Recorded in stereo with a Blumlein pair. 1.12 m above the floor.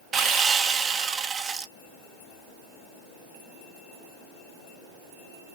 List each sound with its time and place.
0.1 s sawing: 25° right, 1.0 m